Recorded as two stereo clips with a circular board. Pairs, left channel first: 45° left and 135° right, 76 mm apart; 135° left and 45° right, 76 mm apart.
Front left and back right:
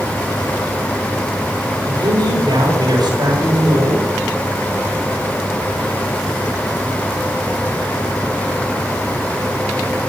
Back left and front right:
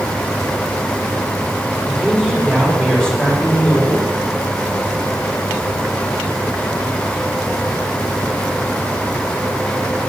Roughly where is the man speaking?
Behind right.